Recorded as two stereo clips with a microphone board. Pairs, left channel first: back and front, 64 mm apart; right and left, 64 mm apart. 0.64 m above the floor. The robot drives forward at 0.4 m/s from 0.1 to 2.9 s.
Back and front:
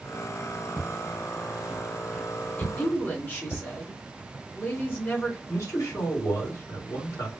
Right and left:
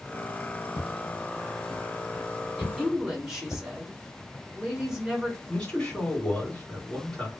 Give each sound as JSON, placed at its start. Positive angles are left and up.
{"t": 0.8, "sound": "footsteps", "azimuth_deg": -75, "distance_m": 1.1}
{"t": 2.6, "sound": "a woman speaking", "azimuth_deg": 165, "distance_m": 1.2}
{"t": 5.5, "sound": "a man speaking", "azimuth_deg": -170, "distance_m": 1.6}